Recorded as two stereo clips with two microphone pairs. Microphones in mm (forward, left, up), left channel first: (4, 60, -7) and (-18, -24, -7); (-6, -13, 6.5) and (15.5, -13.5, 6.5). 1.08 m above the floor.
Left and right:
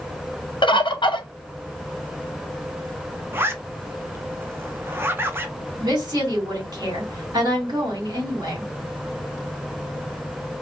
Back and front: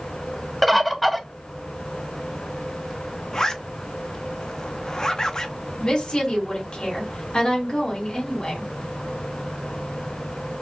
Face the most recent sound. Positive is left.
turn(degrees=-140)